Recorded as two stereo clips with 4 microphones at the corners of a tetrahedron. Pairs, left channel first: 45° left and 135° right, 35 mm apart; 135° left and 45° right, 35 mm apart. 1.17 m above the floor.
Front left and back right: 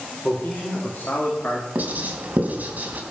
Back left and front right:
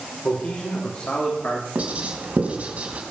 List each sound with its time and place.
0.2 s a man speaking: 95° left, 4 m
1.8 s writing: 90° right, 3 m